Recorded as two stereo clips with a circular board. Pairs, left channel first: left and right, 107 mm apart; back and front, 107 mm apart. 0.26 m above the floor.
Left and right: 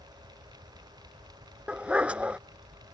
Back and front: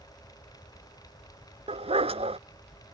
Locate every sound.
1.7 s a dog barking: 10° right